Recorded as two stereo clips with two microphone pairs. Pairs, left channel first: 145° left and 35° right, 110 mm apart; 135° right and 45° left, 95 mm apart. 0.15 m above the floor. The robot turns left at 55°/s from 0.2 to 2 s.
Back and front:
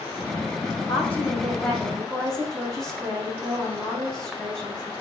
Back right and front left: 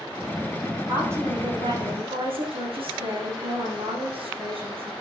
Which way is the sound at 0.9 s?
120° left.